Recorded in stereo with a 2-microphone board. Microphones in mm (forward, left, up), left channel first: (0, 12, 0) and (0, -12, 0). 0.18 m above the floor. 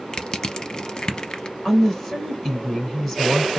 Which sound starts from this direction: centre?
A woman speaking, at 1.6 s.